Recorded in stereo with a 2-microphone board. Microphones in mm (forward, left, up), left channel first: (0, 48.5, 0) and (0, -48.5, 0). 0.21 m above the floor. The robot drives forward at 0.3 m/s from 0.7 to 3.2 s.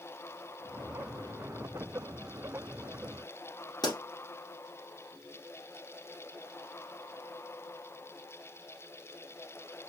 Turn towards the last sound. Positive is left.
turn(degrees=50)  # may be behind; listen again after turning